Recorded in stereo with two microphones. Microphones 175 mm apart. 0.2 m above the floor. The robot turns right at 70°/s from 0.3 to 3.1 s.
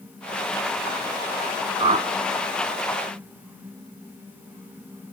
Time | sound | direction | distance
1.8 | a whoosh | 25° right (ahead or behind) | 0.5 m